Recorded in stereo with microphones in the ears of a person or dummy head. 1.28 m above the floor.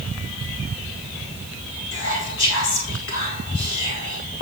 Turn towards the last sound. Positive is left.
turn(degrees=60)  # may be behind; listen again after turning